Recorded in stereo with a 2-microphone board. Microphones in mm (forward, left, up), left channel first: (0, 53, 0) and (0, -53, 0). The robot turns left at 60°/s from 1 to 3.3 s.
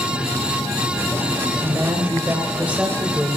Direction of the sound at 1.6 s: 20° right (ahead or behind).